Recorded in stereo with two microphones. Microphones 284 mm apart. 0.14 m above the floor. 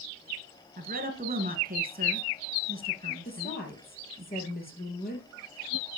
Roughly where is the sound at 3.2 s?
Left.